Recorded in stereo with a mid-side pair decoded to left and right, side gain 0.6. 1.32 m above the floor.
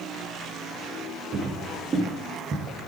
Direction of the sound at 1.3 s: 35° right.